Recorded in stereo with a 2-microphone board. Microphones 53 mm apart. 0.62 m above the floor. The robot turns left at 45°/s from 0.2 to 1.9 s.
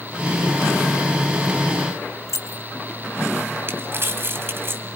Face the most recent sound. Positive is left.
turn(degrees=-45)  # may be behind; listen again after turning